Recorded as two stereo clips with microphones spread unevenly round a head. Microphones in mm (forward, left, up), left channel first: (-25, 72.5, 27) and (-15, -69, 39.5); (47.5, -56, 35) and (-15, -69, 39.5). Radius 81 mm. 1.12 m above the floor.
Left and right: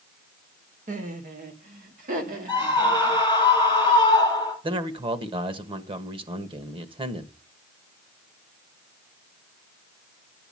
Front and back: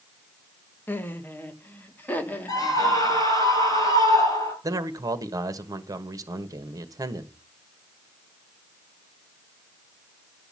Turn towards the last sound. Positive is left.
turn(degrees=-140)